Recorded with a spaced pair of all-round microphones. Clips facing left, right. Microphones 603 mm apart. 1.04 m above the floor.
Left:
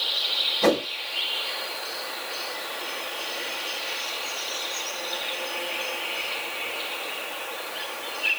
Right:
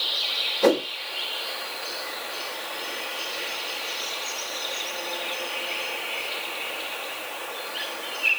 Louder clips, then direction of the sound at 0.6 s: Right 2 dB; 40° left (ahead or behind).